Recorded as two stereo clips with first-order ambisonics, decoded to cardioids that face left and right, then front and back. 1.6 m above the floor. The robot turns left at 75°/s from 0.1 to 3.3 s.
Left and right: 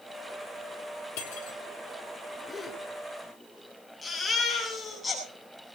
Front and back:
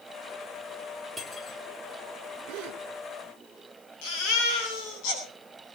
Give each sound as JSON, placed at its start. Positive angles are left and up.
{"t": 1.2, "sound": "cutlery clinking", "azimuth_deg": 95, "distance_m": 2.5}
{"t": 2.5, "sound": "a gasp", "azimuth_deg": 170, "distance_m": 3.5}
{"t": 4.0, "sound": "a baby crying", "azimuth_deg": 10, "distance_m": 8.5}